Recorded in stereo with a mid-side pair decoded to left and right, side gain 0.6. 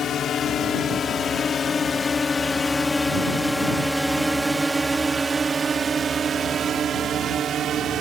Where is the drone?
50° left; by 8.0 s 50° right.